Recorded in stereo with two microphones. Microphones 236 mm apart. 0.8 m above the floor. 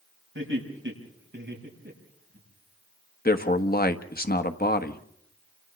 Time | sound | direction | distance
0.3 | laughter | 55° right (ahead or behind) | 5.5 m
3.2 | a man speaking | 40° left (ahead or behind) | 1.2 m